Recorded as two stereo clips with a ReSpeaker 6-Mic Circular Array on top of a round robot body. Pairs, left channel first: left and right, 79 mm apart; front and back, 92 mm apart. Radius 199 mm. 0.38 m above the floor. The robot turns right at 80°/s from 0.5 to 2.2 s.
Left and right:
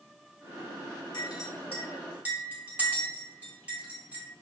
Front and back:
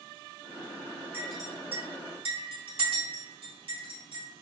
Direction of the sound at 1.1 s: 110° left.